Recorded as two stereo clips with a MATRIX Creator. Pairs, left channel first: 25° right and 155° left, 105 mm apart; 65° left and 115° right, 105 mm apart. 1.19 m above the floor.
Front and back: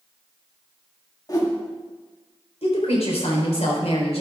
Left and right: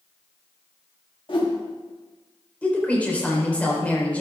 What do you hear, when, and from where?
1.3 s a whoosh: 30° left, 2 m
2.6 s a woman speaking: 5° right, 4 m